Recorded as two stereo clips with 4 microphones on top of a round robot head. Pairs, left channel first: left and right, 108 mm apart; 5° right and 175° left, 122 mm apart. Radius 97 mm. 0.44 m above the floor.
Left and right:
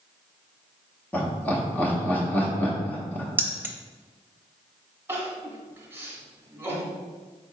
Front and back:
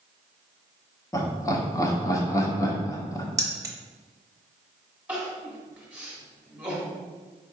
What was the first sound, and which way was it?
Laughter, 30° left.